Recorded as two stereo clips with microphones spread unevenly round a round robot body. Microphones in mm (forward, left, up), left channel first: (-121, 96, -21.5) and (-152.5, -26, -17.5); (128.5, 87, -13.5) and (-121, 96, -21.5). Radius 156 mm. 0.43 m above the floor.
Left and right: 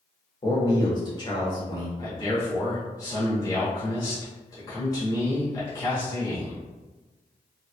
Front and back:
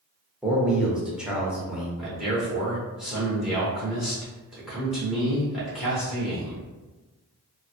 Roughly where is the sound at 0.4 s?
Left.